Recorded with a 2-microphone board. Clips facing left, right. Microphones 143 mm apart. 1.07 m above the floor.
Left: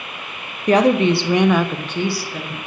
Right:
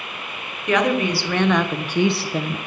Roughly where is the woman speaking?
Left.